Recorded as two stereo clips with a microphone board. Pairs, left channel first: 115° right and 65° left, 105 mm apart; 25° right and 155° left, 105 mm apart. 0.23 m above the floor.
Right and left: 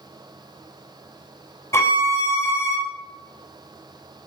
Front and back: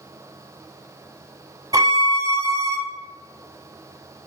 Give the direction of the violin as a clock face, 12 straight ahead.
6 o'clock.